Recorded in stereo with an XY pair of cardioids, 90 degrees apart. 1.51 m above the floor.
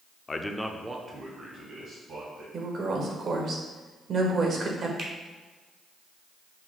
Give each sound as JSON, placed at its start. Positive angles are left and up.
{"t": 0.3, "sound": "a man speaking", "azimuth_deg": 35, "distance_m": 0.5}
{"t": 2.5, "sound": "a woman speaking", "azimuth_deg": -55, "distance_m": 1.1}
{"t": 5.0, "sound": "a finger snap", "azimuth_deg": -60, "distance_m": 1.0}